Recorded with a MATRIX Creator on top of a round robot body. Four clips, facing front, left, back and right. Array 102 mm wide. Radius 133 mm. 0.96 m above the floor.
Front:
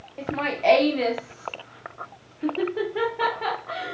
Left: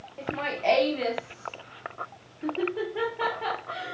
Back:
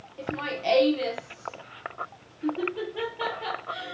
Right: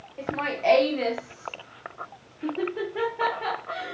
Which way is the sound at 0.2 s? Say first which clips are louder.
Right 3 dB, front 6 dB; 10° right.